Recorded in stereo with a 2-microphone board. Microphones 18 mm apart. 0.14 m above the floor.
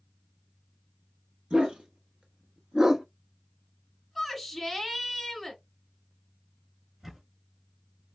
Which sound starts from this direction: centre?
A shout, at 4.2 s.